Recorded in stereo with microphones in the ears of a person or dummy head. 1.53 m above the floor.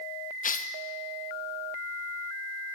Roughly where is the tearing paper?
Left.